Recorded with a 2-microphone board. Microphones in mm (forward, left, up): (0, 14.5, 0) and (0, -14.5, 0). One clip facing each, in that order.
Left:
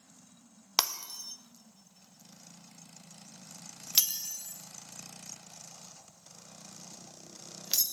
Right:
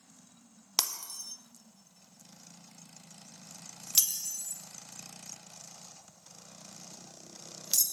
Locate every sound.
0.8 s breaking glass: 20° left (ahead or behind), 0.6 m